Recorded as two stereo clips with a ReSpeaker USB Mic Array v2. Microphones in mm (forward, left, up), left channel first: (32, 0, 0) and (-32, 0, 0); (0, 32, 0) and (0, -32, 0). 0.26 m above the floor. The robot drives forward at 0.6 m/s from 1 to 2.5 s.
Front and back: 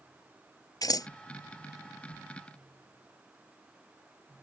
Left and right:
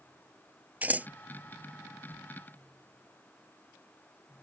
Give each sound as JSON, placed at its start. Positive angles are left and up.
{"t": 0.8, "sound": "scissors", "azimuth_deg": -25}